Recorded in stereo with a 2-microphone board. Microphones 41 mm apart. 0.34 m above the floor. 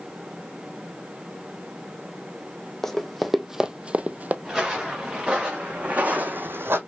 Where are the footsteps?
10° right (ahead or behind), 3.5 m; by 6.8 s 75° right (ahead or behind), 1.0 m.